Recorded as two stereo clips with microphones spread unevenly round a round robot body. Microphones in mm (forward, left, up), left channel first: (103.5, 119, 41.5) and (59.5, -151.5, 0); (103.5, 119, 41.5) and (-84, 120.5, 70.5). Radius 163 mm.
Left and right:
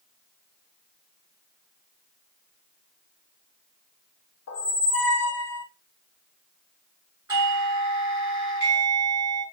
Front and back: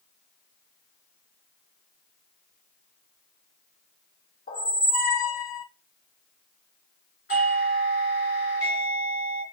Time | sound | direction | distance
4.5 | a squeak | 40° left | 0.9 m
7.3 | a doorbell | 35° right | 2.5 m